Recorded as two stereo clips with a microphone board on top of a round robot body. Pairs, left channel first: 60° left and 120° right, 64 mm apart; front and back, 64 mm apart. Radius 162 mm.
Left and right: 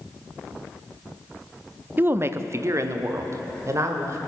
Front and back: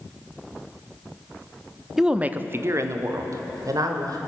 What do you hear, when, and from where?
2.0 s a woman speaking: 100° right, 0.8 m; by 4.2 s 160° right, 2 m